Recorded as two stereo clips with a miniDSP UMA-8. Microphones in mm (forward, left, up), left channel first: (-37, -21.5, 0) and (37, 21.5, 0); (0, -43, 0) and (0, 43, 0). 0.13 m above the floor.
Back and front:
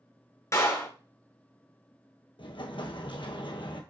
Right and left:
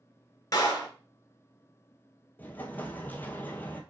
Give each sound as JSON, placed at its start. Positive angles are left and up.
{"t": 0.5, "sound": "a clap", "azimuth_deg": -115, "distance_m": 1.2}
{"t": 2.4, "sound": "an explosion", "azimuth_deg": -155, "distance_m": 0.8}